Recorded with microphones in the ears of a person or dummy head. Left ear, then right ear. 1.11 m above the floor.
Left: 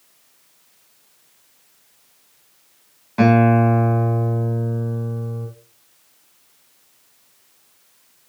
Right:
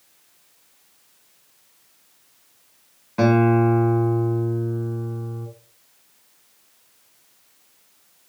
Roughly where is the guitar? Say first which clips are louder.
Left 2 dB; centre.